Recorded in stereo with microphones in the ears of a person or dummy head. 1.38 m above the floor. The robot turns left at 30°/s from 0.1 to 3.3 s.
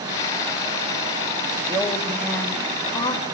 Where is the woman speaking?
170° right, 3.5 m; by 3.2 s 145° left, 3.5 m.